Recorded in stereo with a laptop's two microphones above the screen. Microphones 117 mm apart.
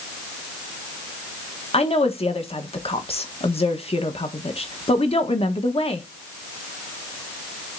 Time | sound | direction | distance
1.7 | a woman speaking | 60° left (ahead or behind) | 1.4 m